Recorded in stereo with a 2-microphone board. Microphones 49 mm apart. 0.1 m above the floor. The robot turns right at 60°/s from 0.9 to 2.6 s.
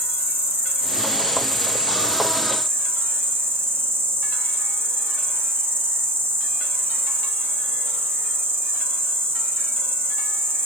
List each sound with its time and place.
0.0 s an insect: 140° left, 2.5 m; by 10.7 s 120° right, 2.5 m